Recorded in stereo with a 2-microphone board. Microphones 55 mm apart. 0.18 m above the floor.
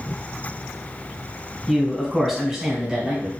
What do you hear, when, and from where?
1.7 s a man speaking: centre (ahead or behind), 1.2 m; by 3.3 s 10° right (ahead or behind), 1.3 m